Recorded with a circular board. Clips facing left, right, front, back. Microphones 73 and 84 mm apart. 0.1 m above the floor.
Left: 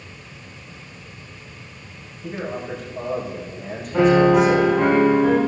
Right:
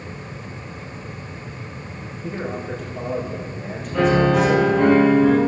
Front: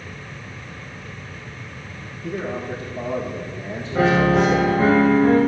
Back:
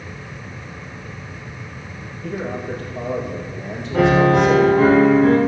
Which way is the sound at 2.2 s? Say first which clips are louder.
Even, back 1 dB; straight behind.